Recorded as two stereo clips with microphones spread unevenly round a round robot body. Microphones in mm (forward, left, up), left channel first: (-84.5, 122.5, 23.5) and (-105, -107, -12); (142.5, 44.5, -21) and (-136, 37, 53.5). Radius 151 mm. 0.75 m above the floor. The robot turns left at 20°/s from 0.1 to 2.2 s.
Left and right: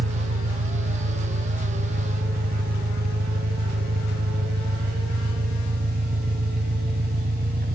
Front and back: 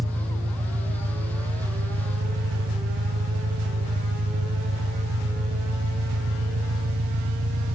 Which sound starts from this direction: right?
An engine running, at 0.0 s.